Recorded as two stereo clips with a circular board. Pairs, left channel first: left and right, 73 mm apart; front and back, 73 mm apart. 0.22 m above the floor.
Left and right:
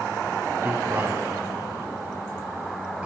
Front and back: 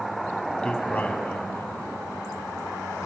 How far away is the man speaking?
About 1.7 m.